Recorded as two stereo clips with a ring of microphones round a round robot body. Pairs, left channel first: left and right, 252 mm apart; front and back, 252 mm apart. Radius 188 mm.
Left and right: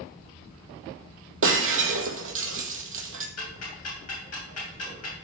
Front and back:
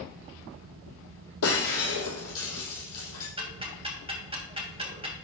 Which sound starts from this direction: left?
Ticking, at 3.4 s.